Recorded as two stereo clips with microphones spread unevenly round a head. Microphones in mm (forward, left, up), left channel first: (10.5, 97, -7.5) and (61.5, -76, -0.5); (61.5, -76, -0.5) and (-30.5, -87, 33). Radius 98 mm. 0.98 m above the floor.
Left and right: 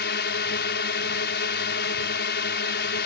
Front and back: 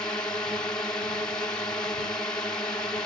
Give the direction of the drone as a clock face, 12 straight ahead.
9 o'clock.